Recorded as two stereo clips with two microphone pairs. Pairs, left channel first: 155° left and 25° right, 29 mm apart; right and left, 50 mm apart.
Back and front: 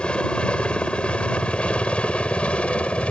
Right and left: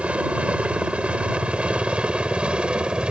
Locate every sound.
0.0 s a helicopter: 140° left; by 3.1 s 150° left